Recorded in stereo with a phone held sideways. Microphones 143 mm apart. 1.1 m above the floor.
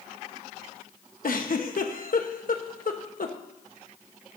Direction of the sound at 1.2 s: 65° left (ahead or behind).